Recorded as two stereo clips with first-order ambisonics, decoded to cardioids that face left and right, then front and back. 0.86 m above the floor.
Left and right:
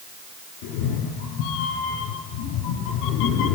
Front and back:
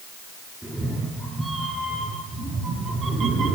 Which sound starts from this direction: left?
A cat meowing, at 0.6 s.